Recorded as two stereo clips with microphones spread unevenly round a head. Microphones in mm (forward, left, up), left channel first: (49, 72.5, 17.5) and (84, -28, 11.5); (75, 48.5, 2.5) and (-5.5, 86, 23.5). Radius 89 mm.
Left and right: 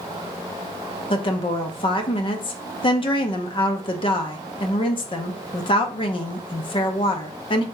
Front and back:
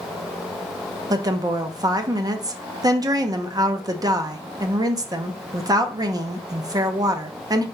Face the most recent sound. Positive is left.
turn(degrees=105)